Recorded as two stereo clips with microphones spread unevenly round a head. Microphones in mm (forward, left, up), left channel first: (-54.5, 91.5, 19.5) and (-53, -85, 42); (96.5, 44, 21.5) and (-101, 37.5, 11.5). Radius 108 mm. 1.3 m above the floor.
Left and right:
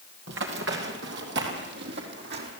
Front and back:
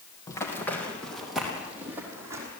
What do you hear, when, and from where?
0.3 s running footsteps: 70° right, 2.5 m; by 2.5 s 100° right, 3.5 m